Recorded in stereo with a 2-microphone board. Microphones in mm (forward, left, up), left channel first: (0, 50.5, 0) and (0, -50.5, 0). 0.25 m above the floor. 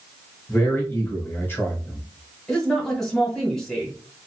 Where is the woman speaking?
5° left (ahead or behind), 1.7 m.